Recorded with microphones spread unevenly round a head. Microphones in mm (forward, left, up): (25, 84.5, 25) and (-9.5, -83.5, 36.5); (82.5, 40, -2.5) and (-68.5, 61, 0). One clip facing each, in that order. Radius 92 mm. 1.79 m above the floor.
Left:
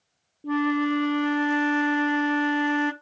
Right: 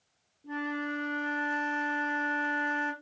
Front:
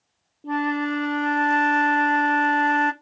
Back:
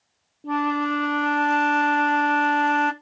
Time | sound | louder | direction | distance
0.4 | a flute | left 11 dB, even | 85° left | 0.9 m